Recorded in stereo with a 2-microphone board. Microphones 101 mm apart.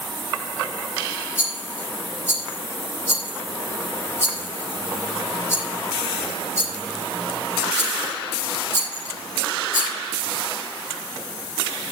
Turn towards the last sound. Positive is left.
turn(degrees=25)  # may be behind; listen again after turning